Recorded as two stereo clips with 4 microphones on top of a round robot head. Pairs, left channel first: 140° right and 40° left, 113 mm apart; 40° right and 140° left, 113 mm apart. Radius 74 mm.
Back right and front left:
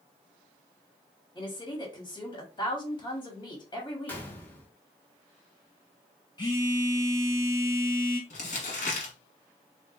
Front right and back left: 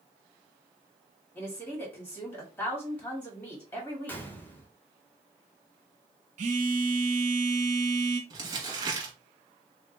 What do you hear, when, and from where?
1.4 s a woman speaking: 110° right, 1.3 m
4.1 s a gunshot: 85° right, 0.9 m
6.4 s a phone buzzing: 165° left, 1.8 m
8.3 s crumpling: 160° right, 1.1 m